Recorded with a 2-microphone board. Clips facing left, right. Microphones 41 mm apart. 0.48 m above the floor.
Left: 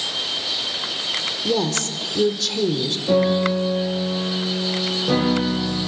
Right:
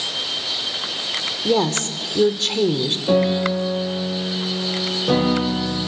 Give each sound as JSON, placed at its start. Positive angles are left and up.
{"t": 1.4, "sound": "a woman speaking", "side_deg": -45, "distance_m": 1.4}
{"t": 3.1, "sound": "a piano", "side_deg": -30, "distance_m": 5.5}